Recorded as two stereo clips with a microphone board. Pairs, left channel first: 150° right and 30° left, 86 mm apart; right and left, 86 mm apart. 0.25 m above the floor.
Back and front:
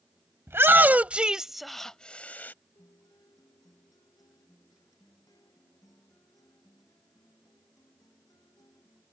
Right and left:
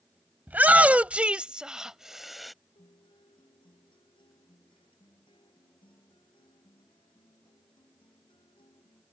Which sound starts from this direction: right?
A guitar, at 2.8 s.